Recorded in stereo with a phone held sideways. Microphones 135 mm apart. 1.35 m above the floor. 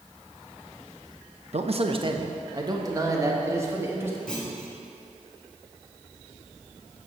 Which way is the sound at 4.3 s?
5° left (ahead or behind).